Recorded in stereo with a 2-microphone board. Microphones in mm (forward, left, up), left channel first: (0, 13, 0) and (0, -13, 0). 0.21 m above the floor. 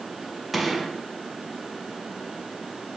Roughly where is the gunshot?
Centre.